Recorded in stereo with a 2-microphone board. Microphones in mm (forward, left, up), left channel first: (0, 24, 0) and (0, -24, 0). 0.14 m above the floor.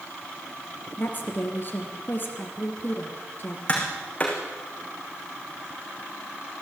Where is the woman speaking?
40° left (ahead or behind), 3 m.